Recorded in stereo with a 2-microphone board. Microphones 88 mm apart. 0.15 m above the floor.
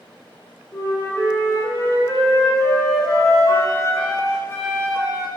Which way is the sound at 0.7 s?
30° left (ahead or behind).